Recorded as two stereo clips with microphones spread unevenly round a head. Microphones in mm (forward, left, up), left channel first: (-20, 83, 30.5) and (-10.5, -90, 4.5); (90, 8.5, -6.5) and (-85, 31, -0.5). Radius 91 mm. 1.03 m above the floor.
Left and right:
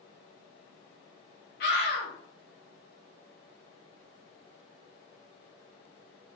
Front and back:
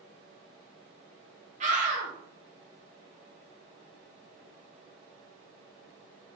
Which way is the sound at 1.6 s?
125° left.